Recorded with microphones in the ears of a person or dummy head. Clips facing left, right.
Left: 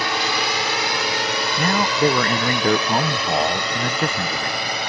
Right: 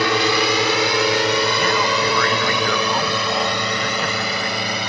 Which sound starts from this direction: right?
A drone, at 0.0 s.